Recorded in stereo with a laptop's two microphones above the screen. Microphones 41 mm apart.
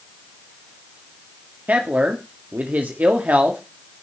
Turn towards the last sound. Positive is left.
turn(degrees=-45)  # may be behind; listen again after turning